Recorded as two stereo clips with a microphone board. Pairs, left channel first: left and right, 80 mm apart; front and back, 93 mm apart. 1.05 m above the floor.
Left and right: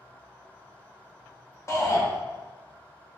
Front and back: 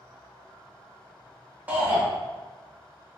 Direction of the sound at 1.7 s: 115° left.